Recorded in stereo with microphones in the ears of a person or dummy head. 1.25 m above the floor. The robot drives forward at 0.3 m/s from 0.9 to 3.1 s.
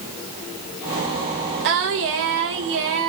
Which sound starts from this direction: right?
Singing, at 1.6 s.